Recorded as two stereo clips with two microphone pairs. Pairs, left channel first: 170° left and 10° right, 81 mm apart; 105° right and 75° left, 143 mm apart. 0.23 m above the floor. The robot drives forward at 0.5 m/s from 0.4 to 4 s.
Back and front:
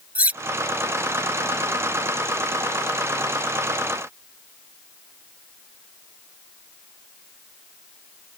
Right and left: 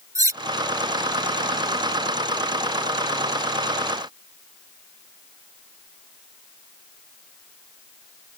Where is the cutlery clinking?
45° left; by 0.4 s 50° left.